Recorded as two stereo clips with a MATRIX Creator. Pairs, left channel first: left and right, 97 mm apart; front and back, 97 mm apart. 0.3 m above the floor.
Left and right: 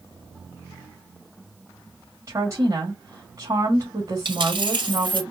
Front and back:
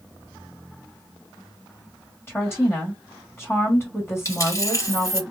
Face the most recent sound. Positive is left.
turn(degrees=-55)